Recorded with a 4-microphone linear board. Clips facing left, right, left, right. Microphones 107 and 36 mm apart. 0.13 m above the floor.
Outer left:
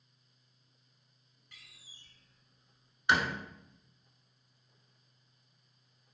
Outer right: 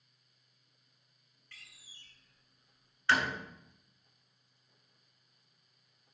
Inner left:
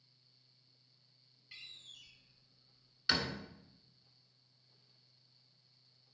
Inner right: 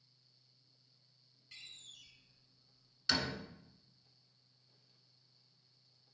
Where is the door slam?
15° left (ahead or behind), 0.9 m.